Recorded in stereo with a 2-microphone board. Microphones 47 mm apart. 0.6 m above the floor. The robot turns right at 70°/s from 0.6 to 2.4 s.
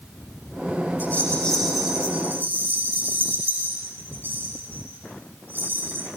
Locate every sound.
1.0 s a rattle: 50° left (ahead or behind), 9.5 m; by 6.1 s 45° right (ahead or behind), 9.5 m